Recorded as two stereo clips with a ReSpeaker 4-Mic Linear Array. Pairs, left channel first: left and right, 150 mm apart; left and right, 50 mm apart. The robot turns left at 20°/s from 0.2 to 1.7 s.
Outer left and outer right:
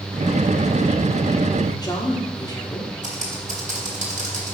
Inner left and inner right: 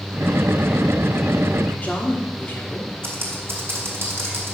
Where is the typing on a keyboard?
55° right (ahead or behind), 1.8 m.